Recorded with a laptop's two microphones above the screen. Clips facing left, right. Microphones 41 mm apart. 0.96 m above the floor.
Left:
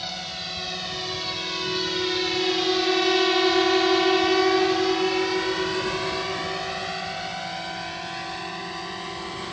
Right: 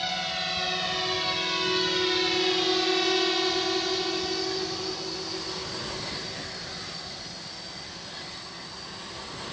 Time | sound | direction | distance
0.0 | a drone | 25° right (ahead or behind) | ?